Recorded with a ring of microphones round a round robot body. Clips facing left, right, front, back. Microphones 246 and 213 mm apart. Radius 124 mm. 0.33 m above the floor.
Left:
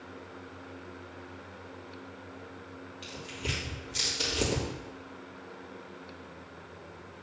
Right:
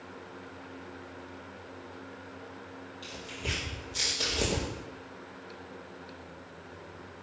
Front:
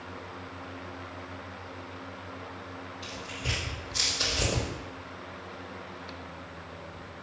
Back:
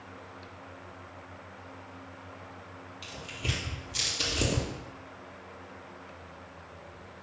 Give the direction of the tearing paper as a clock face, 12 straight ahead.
7 o'clock.